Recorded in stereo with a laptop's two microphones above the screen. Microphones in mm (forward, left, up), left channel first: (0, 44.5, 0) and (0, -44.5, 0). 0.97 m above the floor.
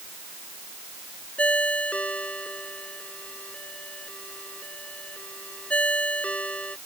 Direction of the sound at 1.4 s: 15° left (ahead or behind).